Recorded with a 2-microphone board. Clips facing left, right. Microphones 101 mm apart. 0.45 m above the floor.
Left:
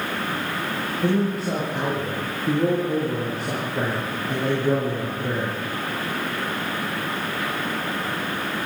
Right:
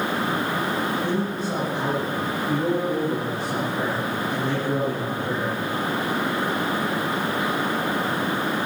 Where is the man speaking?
80° left, 8 m.